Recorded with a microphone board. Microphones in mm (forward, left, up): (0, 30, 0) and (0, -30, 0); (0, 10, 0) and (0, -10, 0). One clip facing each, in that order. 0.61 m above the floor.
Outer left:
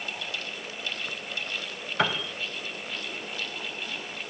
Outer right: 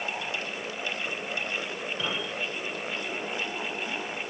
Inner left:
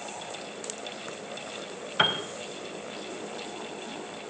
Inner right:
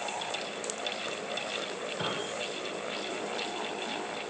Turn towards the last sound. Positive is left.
turn(degrees=60)  # may be behind; listen again after turning